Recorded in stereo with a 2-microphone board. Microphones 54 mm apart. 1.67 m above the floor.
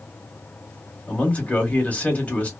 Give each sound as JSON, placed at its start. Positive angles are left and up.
{"t": 1.1, "sound": "a man speaking", "side_deg": 30, "distance_m": 1.4}